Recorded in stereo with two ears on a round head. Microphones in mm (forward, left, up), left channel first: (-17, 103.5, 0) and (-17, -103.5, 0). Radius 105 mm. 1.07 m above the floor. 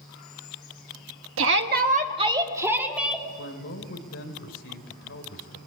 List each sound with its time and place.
1.4 s a shout: 60° right (ahead or behind), 1.3 m; by 3.3 s centre (ahead or behind), 2.5 m
3.4 s a man speaking: 50° left (ahead or behind), 4 m